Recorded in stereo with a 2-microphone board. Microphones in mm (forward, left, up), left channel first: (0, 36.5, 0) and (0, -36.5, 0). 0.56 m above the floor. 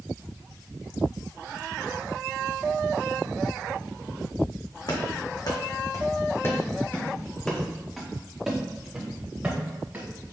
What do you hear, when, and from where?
4.9 s running footsteps: 70° left (ahead or behind), 1.9 m; by 10.1 s 25° right (ahead or behind), 3.5 m